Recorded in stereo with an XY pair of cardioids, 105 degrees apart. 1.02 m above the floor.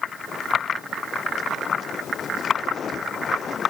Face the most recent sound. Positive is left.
No sound to turn to.